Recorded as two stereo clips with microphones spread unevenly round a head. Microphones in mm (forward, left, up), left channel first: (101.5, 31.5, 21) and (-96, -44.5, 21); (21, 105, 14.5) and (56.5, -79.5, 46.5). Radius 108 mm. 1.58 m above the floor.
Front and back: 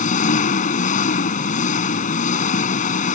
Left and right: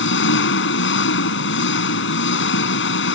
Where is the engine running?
80° left.